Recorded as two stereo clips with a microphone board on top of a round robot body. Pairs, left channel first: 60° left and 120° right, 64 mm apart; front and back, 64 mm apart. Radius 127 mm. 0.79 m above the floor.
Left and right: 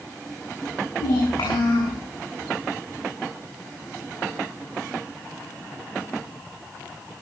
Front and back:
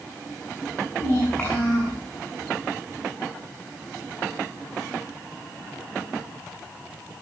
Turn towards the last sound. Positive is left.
turn(degrees=75)